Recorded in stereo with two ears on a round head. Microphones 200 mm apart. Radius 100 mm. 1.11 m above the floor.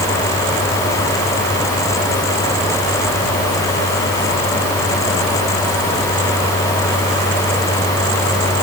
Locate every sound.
Only background noise.